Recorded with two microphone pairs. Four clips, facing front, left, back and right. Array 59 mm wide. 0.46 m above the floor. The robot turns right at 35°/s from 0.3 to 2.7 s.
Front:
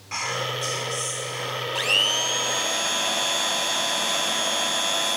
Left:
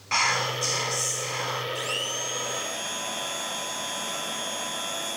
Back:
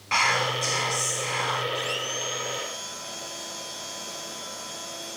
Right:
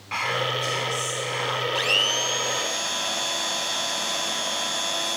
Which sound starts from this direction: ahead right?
A blender, at 1.8 s.